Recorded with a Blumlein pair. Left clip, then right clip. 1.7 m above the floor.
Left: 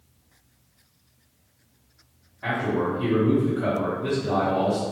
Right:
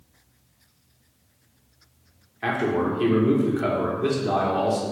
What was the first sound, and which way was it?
A man speaking, 65° right.